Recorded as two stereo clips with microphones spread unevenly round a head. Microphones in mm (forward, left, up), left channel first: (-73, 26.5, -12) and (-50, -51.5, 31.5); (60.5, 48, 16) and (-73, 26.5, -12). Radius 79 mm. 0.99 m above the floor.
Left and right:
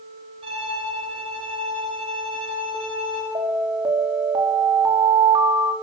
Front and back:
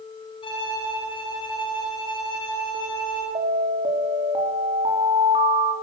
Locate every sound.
0.4 s a violin: 50° right, 9 m
3.4 s an alarm: 110° right, 3.5 m